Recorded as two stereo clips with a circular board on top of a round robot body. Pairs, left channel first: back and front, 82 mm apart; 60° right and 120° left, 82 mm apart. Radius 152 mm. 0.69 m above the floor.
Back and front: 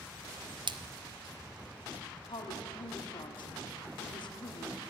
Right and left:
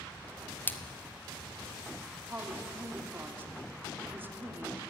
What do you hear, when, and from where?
0.7 s a splash: 5° left, 1.2 m
2.3 s a woman speaking: 175° right, 2.5 m